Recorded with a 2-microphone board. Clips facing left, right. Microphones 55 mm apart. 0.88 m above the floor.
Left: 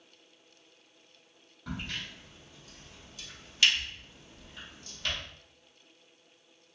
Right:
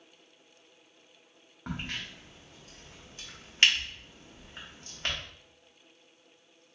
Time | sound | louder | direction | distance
1.7 | a crack | right 1 dB | 40° right (ahead or behind) | 1.1 m